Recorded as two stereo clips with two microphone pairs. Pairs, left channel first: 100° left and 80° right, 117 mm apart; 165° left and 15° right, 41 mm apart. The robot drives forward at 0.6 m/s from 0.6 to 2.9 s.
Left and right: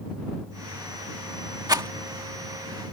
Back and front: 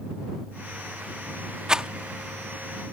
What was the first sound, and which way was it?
A rattle, 60° right.